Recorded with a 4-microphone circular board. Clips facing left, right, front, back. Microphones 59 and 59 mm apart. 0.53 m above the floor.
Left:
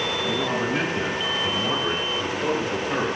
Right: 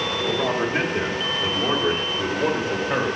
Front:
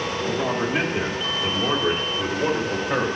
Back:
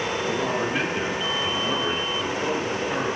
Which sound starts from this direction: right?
A man speaking, at 0.2 s.